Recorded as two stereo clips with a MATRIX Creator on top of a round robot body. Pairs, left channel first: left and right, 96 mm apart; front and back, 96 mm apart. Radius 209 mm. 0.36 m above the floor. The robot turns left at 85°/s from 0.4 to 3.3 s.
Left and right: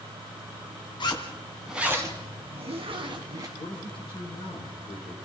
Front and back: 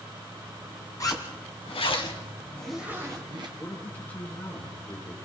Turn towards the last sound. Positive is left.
turn(degrees=75)